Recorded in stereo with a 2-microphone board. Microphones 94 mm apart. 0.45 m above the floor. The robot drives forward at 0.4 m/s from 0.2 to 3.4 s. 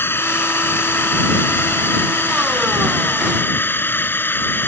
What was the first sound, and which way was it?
A drone, 25° left (ahead or behind).